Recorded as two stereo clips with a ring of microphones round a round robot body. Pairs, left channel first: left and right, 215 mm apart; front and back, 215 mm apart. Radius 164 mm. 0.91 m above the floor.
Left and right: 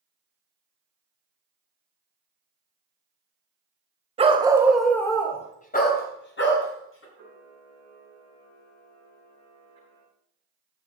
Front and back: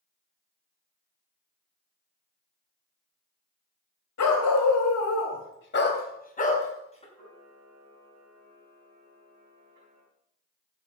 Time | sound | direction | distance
4.2 | a dog barking | 25° right | 2.0 m
7.1 | a camera shutter | 140° right | 5 m